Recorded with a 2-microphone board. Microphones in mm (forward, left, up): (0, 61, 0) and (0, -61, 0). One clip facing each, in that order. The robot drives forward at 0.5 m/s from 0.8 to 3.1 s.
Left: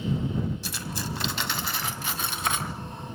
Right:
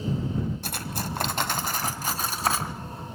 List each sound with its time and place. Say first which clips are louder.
0.6 s cutlery clinking: right 1 dB; 55° right (ahead or behind), 1.7 m; by 2.8 s 35° right (ahead or behind), 2.5 m